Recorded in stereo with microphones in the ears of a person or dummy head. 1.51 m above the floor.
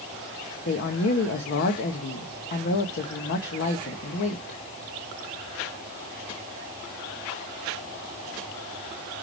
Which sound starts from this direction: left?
A woman speaking, at 0.7 s.